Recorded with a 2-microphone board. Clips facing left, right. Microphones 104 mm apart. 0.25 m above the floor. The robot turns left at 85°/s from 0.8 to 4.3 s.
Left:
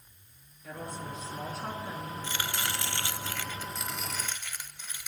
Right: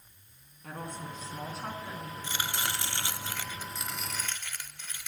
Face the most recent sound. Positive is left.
turn(degrees=10)  # may be behind; listen again after turning